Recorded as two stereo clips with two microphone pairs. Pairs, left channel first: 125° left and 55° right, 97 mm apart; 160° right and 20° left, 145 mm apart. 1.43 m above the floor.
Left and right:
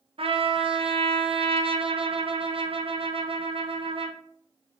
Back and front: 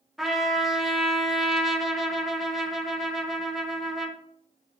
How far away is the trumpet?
About 0.5 m.